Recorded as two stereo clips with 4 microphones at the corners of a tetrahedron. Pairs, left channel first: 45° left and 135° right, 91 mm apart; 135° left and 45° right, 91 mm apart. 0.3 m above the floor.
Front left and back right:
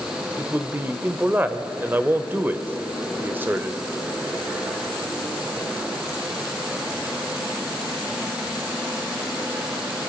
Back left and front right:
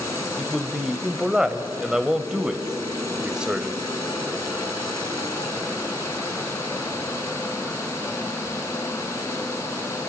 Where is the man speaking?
110° right, 1.1 m.